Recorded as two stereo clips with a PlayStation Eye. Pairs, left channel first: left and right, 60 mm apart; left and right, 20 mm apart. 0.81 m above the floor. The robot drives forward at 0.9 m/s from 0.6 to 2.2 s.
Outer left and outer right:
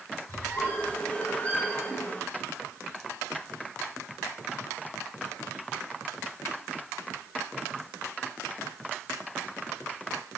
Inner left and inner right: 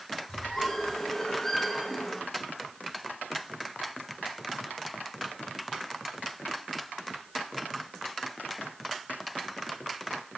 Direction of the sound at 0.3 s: 30° left (ahead or behind).